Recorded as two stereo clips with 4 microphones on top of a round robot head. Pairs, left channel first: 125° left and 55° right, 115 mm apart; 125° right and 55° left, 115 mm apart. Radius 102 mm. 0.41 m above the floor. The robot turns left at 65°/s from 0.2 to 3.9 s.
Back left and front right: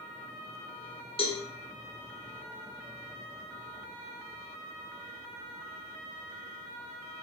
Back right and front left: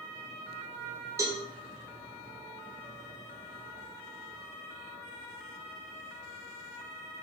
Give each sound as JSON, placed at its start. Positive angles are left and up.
{"t": 1.2, "sound": "a cowbell", "azimuth_deg": 110, "distance_m": 1.2}